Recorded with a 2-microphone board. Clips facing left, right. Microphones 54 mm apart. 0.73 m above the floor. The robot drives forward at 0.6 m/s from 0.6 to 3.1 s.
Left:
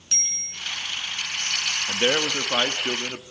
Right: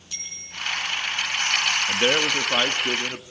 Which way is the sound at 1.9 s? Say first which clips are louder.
Left 1 dB; 5° right (ahead or behind).